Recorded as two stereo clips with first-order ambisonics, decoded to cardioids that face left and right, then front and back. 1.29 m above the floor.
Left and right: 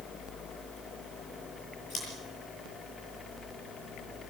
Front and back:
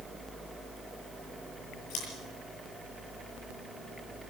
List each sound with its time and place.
1.9 s scissors: 30° left, 8 m